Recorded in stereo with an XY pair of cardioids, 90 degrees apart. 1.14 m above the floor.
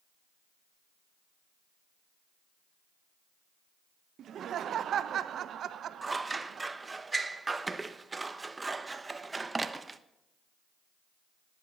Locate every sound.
4.2 s laughter: 70° right, 0.8 m
6.0 s scissors: 25° right, 0.8 m